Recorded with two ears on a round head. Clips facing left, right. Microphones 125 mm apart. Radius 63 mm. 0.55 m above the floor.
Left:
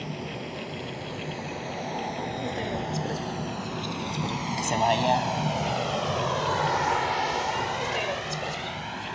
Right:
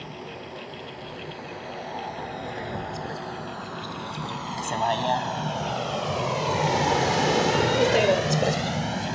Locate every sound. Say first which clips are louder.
0.0 s a vehicle: left 3 dB; 25° left (ahead or behind); by 9.2 s 50° right (ahead or behind)